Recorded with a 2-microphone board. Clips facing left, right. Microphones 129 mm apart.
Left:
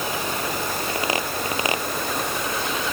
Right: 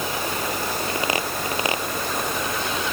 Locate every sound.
Only background noise.